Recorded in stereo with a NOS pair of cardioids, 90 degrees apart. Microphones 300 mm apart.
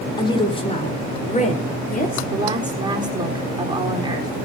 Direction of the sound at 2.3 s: 15° right.